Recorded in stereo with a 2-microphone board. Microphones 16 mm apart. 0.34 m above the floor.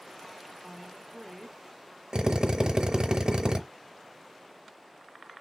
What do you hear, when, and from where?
0.6 s a woman speaking: 10° left (ahead or behind), 1.2 m
2.1 s a drill: 60° right (ahead or behind), 0.7 m